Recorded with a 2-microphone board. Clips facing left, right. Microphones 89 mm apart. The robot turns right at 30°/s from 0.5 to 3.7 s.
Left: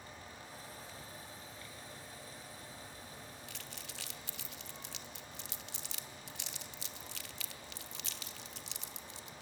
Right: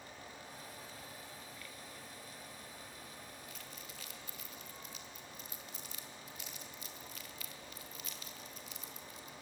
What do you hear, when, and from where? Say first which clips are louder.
3.5 s crumpling: left 1 dB; 80° left, 0.9 m